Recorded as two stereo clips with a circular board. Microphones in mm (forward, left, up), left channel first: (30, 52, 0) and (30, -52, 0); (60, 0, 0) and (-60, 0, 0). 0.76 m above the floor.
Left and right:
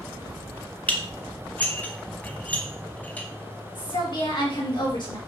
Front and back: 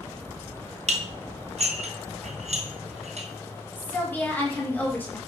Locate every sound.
0.9 s dishes clattering: 165° left, 0.5 m
3.8 s a woman speaking: 70° left, 1.1 m